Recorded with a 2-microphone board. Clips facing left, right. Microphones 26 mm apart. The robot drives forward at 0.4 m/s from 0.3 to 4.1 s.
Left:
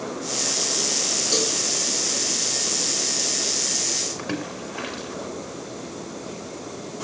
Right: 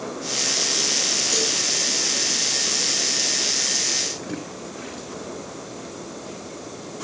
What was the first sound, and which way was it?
A cowbell, 55° left (ahead or behind).